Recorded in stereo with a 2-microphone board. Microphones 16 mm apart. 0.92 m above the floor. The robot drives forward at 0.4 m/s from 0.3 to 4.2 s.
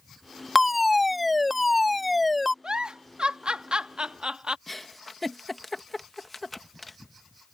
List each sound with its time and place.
0.6 s a fire alarm: 5° right (ahead or behind)
2.6 s a giggle: 70° right (ahead or behind)
4.7 s a giggle: 10° left (ahead or behind)